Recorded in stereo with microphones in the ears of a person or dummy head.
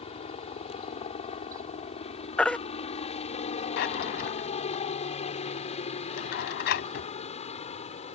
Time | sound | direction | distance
0.0 | a helicopter | 30° left (ahead or behind) | ?
2.4 | a baby crying | 5° left (ahead or behind) | ?
3.8 | a drawer | 50° left (ahead or behind) | ?